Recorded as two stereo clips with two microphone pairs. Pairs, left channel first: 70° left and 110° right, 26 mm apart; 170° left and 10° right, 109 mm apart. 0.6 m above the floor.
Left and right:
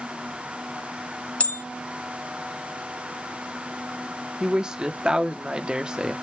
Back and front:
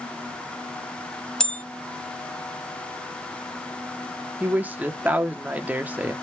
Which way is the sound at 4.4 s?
80° right.